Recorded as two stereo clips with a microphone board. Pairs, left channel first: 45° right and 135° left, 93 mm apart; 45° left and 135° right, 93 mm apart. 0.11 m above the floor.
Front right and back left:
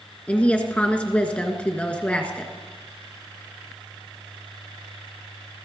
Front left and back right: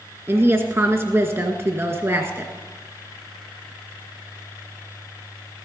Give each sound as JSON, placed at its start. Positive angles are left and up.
{"t": 0.3, "sound": "a woman speaking", "azimuth_deg": -105, "distance_m": 1.6}